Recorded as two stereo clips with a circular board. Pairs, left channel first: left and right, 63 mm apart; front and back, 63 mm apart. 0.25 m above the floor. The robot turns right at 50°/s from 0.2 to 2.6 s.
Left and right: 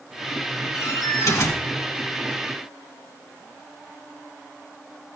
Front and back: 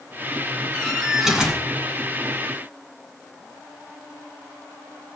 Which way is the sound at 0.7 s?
70° left.